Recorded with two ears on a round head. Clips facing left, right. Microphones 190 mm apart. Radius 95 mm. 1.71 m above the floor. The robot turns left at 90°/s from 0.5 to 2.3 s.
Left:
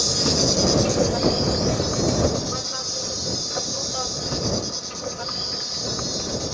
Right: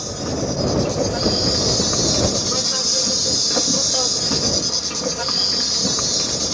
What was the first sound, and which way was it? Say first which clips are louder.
An insect: left 1 dB; 55° left.